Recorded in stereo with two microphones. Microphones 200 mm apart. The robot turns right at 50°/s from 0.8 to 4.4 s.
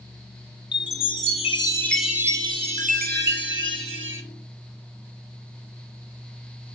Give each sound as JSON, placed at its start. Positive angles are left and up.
{"t": 0.7, "sound": "a chime", "azimuth_deg": 120, "distance_m": 1.5}